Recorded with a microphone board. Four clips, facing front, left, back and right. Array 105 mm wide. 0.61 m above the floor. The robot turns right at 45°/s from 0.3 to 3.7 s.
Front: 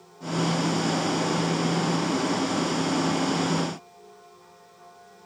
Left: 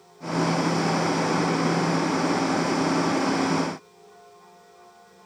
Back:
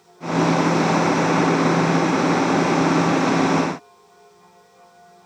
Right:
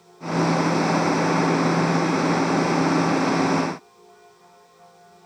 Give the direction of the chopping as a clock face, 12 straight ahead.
I don't hear chopping.